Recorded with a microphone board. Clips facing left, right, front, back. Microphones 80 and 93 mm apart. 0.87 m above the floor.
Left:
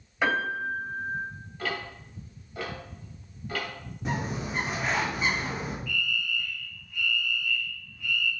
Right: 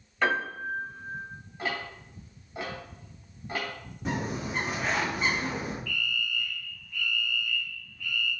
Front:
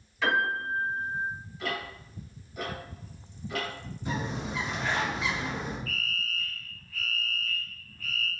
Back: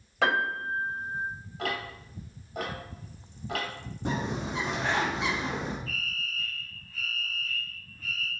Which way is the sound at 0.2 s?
170° left.